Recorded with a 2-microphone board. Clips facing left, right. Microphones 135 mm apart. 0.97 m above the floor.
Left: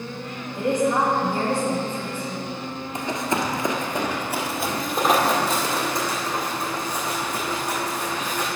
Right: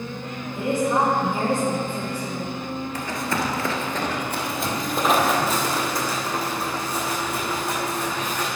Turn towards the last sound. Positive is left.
turn(degrees=-10)  # may be behind; listen again after turning